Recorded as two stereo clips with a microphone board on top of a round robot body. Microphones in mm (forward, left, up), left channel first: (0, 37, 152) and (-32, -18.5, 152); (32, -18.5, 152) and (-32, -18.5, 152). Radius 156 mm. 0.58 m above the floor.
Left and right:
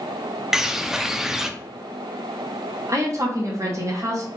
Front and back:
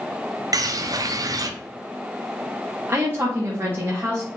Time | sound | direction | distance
0.5 | a bird | 160° left | 0.6 m
2.9 | a woman speaking | 140° right | 1.4 m